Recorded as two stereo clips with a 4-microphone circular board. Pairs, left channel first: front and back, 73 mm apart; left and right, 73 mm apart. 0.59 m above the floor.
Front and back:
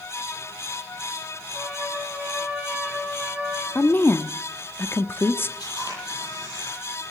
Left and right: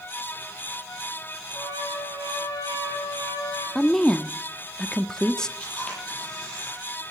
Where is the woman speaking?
15° left, 0.7 m.